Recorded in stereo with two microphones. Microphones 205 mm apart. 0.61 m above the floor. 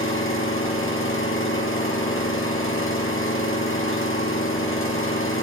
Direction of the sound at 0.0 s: 85° left.